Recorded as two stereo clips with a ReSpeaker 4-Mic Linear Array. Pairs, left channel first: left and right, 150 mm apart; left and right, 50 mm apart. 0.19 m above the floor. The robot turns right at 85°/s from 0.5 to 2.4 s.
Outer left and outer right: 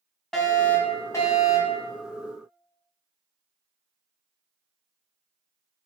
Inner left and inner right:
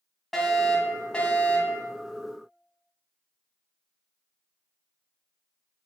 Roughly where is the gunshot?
I don't hear a gunshot.